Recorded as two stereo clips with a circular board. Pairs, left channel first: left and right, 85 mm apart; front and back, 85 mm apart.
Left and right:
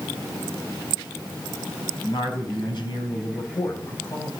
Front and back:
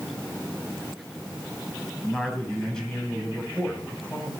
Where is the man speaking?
85° left, 3.5 m; by 4.3 s 70° left, 2.5 m.